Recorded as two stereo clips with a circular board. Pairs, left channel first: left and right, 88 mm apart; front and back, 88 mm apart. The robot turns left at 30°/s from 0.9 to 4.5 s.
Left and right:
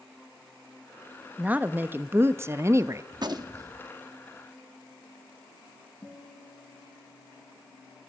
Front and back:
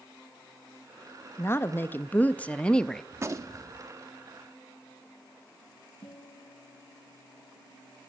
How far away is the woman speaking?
About 0.5 m.